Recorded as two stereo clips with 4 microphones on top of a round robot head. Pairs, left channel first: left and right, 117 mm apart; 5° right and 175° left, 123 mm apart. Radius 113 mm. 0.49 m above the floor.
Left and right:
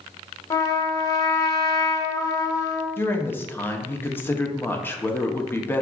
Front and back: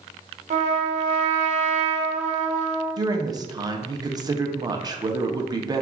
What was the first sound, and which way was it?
A trumpet, 150° left.